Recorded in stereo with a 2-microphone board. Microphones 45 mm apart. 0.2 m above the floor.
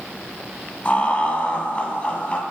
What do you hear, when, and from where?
0.8 s laughter: 30° left (ahead or behind), 1.4 m